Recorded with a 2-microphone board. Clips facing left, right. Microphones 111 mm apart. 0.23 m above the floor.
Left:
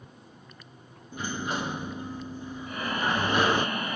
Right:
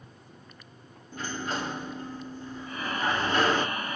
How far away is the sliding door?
About 0.5 m.